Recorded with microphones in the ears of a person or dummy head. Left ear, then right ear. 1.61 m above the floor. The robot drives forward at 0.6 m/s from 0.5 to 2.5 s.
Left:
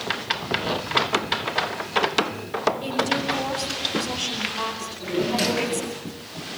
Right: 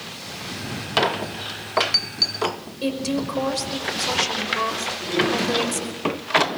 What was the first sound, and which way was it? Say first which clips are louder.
A woman speaking: left 2 dB; 55° right (ahead or behind).